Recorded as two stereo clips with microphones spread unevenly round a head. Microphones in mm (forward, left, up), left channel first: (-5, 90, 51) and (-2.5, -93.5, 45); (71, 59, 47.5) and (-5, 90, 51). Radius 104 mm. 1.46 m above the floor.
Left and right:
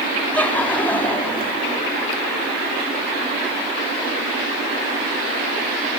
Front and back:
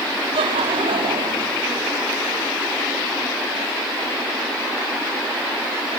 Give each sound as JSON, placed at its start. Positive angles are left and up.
{"t": 0.3, "sound": "laughter", "azimuth_deg": 170, "distance_m": 4.5}